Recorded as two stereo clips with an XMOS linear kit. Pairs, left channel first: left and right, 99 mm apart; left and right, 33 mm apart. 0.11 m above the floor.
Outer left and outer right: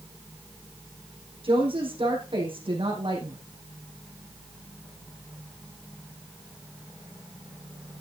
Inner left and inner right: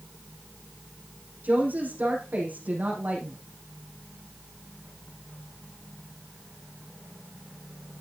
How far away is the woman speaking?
About 5.5 m.